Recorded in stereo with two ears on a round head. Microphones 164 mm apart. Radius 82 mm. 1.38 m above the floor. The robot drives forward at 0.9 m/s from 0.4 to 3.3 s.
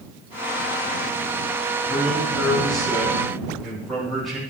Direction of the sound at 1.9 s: Centre (ahead or behind).